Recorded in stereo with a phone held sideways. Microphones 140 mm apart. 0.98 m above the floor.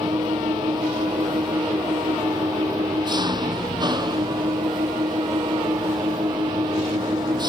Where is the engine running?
30° right (ahead or behind).